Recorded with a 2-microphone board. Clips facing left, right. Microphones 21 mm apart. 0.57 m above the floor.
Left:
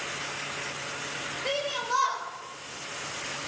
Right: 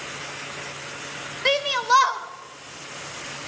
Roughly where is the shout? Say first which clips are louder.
Right 10 dB; right.